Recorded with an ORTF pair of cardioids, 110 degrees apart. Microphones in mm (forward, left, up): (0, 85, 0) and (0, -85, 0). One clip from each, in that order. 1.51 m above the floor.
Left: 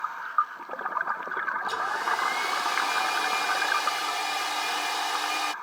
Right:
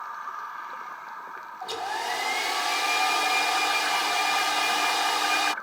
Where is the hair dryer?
25° right.